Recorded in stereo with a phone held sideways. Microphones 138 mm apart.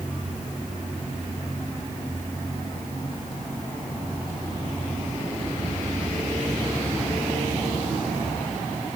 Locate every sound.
Only background noise.